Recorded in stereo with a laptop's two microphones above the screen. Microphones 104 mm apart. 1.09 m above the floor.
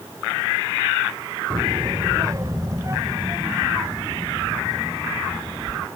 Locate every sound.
1.5 s a child speaking: 50° right (ahead or behind); by 5.9 s 25° right (ahead or behind)